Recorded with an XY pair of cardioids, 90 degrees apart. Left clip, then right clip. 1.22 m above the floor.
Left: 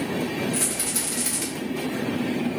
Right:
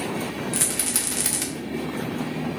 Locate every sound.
0.5 s a rattle: 65° right, 1.1 m